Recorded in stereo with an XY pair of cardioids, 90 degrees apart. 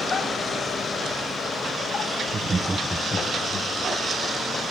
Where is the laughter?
50° right, 1.0 m; by 3.7 s 50° left, 1.5 m.